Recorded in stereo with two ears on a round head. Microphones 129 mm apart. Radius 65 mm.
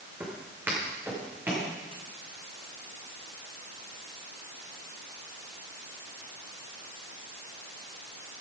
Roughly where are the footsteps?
Centre.